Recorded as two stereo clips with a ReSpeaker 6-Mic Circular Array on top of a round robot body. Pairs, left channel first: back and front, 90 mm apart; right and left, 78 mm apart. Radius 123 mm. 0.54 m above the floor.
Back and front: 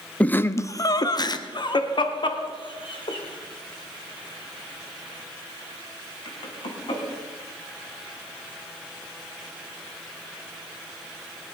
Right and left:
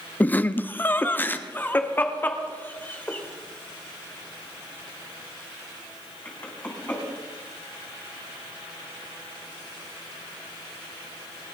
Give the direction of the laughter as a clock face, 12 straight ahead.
4 o'clock.